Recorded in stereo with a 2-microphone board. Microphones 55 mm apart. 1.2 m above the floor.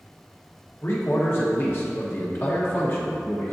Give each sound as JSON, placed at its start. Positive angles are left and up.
{"t": 0.8, "sound": "a man speaking", "side_deg": 45, "distance_m": 1.5}